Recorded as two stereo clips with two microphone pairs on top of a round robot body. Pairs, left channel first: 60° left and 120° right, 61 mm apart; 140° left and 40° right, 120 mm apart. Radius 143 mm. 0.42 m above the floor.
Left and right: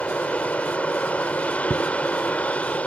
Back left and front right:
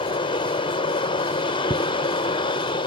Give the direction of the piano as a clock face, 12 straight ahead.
No piano in this recording.